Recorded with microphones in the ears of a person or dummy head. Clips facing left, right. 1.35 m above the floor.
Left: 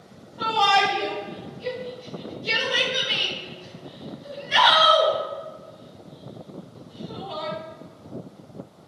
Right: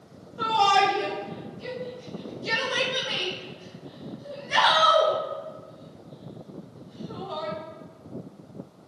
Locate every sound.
0.4 s a shout: 45° right (ahead or behind), 3.5 m; by 7.5 s 55° right (ahead or behind), 8.5 m